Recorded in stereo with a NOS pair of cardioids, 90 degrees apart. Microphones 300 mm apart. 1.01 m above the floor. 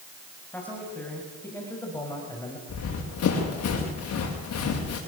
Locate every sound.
0.5 s a man speaking: 5° left, 7.5 m; by 2.6 s 10° left, 6 m
2.7 s running footsteps: 55° left, 7 m